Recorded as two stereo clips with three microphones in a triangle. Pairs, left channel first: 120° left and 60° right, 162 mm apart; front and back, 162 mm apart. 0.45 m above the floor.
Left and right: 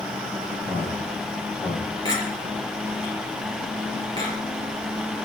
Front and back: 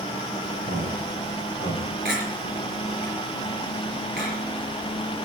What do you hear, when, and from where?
0.7 s a man speaking: 170° right, 9.5 m
2.0 s a clink: 175° right, 5 m